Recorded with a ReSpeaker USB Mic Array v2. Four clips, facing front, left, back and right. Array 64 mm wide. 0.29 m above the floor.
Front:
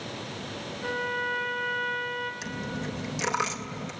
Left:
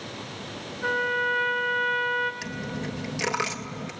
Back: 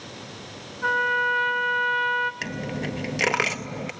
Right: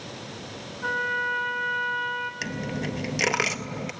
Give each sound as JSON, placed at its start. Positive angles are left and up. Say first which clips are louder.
{"t": 0.8, "sound": "a trumpet", "louder": "left 1 dB, back 8 dB", "azimuth_deg": 180, "distance_m": 1.3}
{"t": 2.4, "sound": "a dropped coin", "louder": "right 2 dB, back 4 dB", "azimuth_deg": -155, "distance_m": 0.6}